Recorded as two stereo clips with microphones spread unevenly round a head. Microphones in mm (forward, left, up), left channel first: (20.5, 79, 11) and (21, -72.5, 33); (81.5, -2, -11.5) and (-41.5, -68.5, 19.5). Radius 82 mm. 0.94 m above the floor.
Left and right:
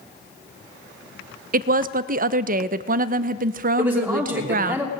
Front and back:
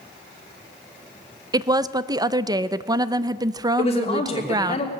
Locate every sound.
1.5 s a woman speaking: 80° right, 0.5 m
3.8 s a man speaking: 10° right, 3 m